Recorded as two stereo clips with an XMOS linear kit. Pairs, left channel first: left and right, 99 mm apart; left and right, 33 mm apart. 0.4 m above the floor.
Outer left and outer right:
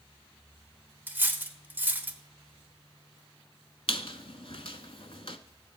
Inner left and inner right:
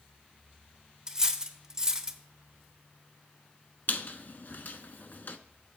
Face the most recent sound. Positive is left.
turn(degrees=70)  # may be behind; listen again after turning